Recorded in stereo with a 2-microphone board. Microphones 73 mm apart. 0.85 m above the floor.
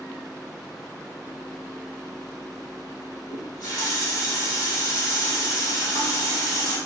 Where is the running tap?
60° left (ahead or behind), 1.8 m.